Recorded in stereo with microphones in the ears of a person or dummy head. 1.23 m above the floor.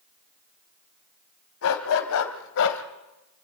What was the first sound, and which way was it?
A dog barking, 75° left (ahead or behind).